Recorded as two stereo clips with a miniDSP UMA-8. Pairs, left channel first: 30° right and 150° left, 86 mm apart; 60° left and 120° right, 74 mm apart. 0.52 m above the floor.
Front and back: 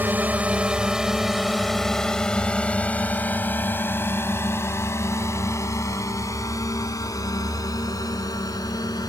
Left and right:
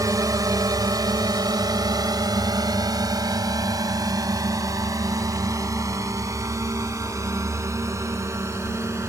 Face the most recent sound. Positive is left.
turn(degrees=-70)